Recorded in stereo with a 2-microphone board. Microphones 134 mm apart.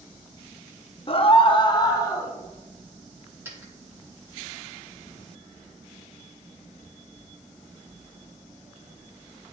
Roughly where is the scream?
Left.